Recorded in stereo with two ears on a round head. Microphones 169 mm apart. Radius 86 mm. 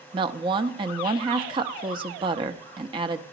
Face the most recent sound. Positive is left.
turn(degrees=-25)  # may be behind; listen again after turning